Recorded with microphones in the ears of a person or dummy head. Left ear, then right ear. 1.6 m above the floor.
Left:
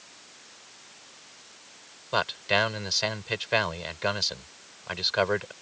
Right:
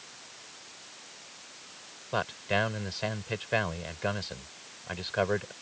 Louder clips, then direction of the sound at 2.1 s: Left 5 dB; 40° left (ahead or behind).